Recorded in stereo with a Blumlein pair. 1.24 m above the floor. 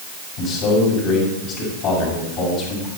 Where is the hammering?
No hammering in this recording.